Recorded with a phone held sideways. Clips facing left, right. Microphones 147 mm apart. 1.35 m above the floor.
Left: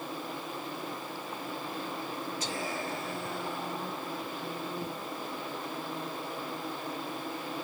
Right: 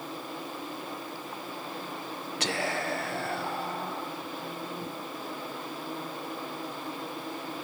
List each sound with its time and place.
2.4 s whispering: 70° right (ahead or behind), 0.6 m